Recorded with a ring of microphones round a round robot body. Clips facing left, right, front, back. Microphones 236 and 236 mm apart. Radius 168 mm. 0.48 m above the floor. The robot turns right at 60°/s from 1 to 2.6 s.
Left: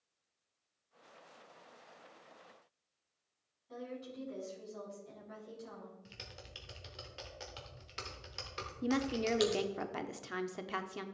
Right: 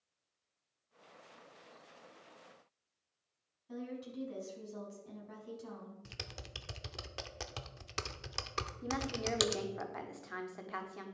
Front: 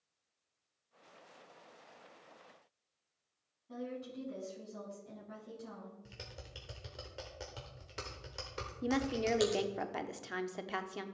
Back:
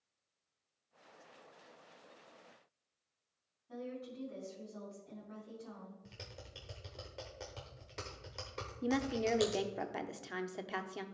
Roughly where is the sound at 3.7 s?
Right.